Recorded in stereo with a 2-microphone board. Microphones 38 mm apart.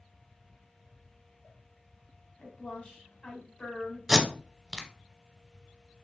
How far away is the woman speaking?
About 1.4 m.